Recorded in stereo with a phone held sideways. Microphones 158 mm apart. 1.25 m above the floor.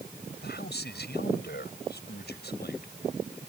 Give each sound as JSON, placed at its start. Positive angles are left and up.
{"t": 0.4, "sound": "a man speaking", "side_deg": 80}